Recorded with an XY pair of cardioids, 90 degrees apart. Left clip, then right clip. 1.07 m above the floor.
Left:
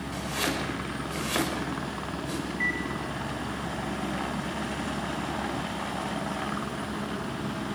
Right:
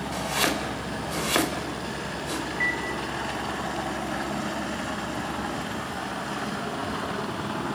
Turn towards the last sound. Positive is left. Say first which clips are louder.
# right 2 dB
turn(degrees=-20)